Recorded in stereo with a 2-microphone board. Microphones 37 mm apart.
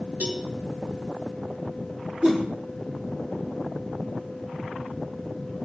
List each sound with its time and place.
0.2 s a cowbell: 50° right (ahead or behind), 3.5 m
2.2 s a whoosh: 40° right (ahead or behind), 5.5 m